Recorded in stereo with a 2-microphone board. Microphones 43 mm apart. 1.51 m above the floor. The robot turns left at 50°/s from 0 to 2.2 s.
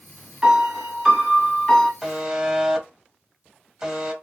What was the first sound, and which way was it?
A piano, 155° right.